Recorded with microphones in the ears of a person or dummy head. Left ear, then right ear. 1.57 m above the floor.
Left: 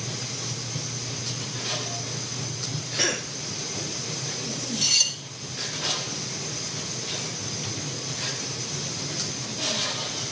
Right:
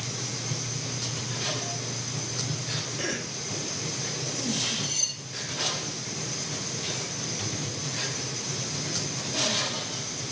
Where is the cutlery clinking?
50° left (ahead or behind), 3.5 m.